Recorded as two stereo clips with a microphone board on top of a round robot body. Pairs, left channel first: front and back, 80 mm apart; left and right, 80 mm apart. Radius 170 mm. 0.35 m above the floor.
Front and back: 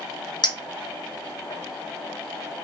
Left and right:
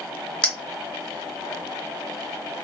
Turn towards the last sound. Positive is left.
turn(degrees=15)